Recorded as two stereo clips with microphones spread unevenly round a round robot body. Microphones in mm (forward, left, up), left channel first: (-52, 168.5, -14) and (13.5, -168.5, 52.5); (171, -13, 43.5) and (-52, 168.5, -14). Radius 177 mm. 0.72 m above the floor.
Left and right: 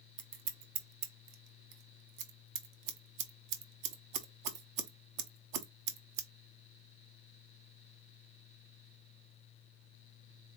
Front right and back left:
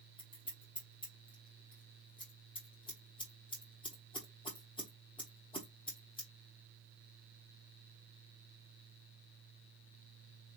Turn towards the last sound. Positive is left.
turn(degrees=-120)